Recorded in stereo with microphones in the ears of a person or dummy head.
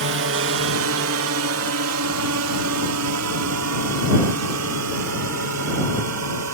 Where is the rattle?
No rattle in this recording.